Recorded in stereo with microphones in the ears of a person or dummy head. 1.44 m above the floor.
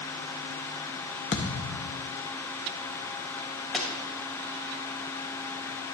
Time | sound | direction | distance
1.3 | a thud | 30° left (ahead or behind) | 0.9 m
3.7 | a pop | centre (ahead or behind) | 2 m